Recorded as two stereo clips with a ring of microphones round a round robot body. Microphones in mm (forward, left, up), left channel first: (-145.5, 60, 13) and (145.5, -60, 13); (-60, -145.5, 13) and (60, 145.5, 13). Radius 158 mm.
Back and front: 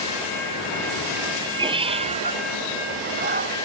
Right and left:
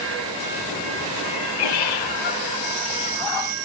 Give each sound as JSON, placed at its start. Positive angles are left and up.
{"t": 1.2, "sound": "a cat meowing", "azimuth_deg": -100}